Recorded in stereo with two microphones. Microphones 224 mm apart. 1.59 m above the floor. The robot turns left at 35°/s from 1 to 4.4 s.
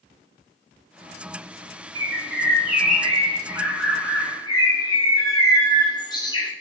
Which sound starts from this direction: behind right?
A bird, at 1.9 s.